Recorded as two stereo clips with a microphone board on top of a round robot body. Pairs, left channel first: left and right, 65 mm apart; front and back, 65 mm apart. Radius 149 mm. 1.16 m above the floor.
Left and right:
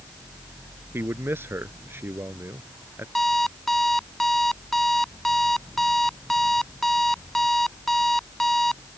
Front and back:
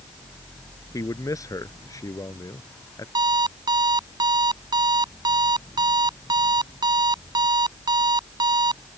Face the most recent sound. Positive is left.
turn(degrees=175)